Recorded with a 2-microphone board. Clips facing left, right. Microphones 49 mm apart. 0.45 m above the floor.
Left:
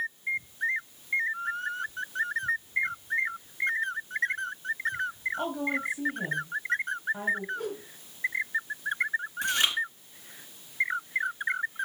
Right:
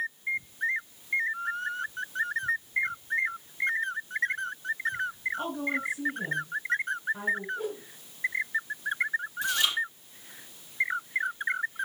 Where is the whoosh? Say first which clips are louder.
Even; 65° left (ahead or behind), 6.5 m.